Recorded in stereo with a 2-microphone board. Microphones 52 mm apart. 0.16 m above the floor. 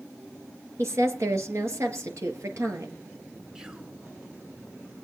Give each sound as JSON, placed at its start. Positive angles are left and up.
{"t": 0.8, "sound": "a woman speaking", "side_deg": -60, "distance_m": 3.0}
{"t": 3.5, "sound": "whispering", "side_deg": -10, "distance_m": 1.9}